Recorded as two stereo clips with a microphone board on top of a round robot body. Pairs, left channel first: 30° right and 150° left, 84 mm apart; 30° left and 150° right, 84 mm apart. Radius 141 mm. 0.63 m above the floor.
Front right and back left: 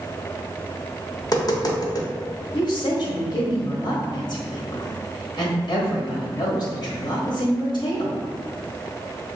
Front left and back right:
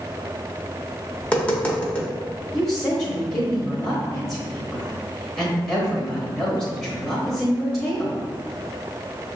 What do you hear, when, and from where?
1.2 s tapping: 35° right, 1.4 m
2.5 s a woman speaking: 40° right, 1.3 m